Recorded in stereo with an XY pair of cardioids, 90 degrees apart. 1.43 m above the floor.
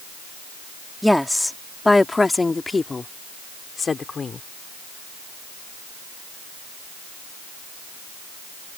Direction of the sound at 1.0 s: 5° left.